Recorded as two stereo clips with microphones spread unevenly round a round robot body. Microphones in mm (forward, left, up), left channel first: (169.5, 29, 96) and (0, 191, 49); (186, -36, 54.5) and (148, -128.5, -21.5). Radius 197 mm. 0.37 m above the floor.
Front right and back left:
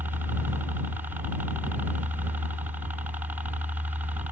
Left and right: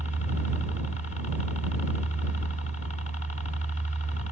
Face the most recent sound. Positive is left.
turn(degrees=80)